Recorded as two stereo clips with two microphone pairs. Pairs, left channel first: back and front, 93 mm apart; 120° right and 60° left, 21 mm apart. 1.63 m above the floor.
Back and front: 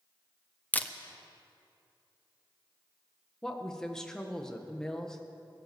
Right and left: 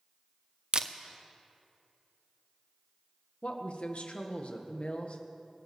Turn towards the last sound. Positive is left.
turn(degrees=-100)